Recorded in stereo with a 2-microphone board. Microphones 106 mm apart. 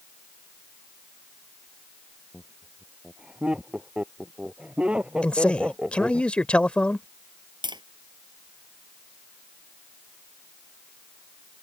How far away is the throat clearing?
I don't hear throat clearing.